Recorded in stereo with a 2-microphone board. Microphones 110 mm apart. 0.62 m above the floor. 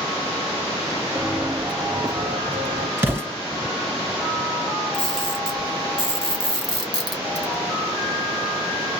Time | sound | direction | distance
1.1 | footsteps | 5° right (ahead or behind) | 0.8 m
3.0 | an explosion | 20° right (ahead or behind) | 1.8 m
4.9 | a camera shutter | 40° right (ahead or behind) | 1.6 m